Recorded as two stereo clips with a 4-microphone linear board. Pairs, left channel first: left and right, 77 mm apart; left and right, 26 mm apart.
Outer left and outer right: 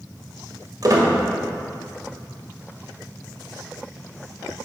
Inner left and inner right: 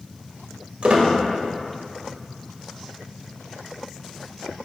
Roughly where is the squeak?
Right.